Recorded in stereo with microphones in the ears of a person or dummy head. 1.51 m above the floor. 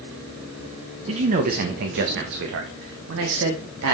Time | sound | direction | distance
1.1 | a man speaking | 35° right (ahead or behind) | 0.9 m